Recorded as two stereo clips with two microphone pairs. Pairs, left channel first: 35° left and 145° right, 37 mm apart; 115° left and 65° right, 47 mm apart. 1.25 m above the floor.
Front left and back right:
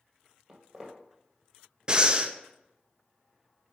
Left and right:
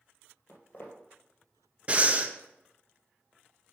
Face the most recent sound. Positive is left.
turn(degrees=-110)